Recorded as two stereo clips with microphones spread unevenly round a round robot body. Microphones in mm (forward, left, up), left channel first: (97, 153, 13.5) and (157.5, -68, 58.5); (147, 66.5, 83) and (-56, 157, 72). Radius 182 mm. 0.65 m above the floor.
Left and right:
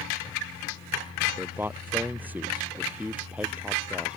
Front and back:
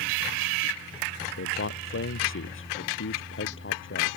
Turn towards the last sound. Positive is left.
turn(degrees=10)